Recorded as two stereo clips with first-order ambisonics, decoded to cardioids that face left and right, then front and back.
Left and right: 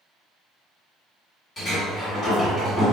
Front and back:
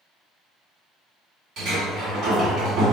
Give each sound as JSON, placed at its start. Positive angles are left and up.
{"t": 1.6, "sound": "a sliding door", "azimuth_deg": 155, "distance_m": 1.9}